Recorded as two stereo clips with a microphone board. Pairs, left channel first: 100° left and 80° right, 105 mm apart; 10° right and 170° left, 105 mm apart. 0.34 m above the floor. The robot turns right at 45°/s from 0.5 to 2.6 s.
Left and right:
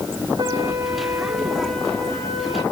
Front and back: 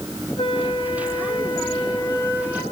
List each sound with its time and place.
0.4 s a flute: 35° right, 2.5 m; by 2.6 s 60° left, 2.5 m